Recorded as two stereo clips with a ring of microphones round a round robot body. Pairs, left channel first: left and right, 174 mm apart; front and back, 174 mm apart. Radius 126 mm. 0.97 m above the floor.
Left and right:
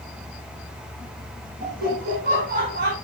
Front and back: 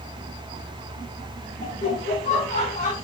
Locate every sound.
1.6 s laughter: 55° right, 6 m; by 2.9 s 65° right, 6.5 m